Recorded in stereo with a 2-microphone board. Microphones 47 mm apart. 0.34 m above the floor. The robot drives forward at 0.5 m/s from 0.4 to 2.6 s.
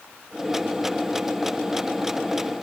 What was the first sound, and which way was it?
Only background noise.